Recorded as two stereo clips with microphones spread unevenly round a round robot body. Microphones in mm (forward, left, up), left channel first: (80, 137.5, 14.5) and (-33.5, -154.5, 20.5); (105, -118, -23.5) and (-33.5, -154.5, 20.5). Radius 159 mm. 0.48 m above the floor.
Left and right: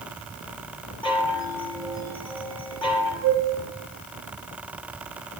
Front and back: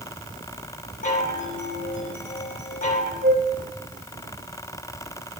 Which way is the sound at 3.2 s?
170° left.